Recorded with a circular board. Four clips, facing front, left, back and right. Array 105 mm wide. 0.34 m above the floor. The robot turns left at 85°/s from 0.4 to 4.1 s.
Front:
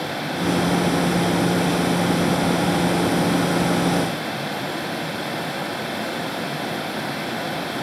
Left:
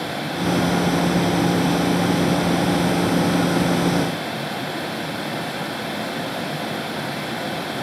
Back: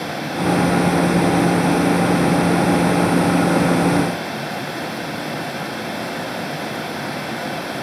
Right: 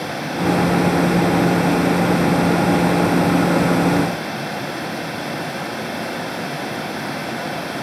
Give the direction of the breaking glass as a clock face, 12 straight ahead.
I don't hear breaking glass.